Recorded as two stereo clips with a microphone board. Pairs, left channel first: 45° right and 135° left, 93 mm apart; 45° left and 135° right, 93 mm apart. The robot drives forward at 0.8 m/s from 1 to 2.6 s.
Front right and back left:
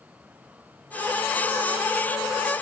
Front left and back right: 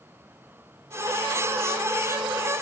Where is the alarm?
I don't hear an alarm.